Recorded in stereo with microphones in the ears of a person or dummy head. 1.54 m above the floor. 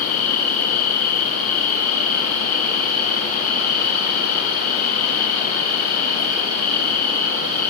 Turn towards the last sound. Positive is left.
turn(degrees=45)  # may be behind; listen again after turning